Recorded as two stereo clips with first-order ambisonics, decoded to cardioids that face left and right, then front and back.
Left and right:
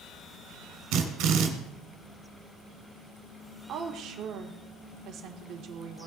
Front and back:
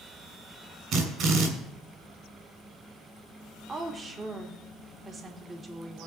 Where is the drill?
125° right, 2 m.